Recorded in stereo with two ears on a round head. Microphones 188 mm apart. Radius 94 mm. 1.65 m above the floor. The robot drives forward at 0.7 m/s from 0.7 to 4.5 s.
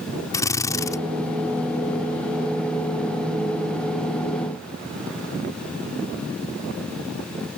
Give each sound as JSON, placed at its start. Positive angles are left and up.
{"t": 0.3, "sound": "a drill", "side_deg": 15}